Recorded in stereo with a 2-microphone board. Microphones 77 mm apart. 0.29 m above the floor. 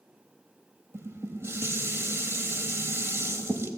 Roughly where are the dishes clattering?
Right.